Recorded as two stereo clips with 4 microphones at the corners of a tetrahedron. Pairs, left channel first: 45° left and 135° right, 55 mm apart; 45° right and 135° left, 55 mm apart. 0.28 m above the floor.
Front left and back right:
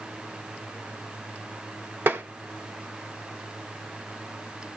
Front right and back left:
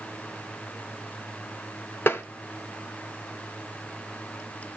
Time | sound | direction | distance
2.1 | tapping | 90° right | 1.0 m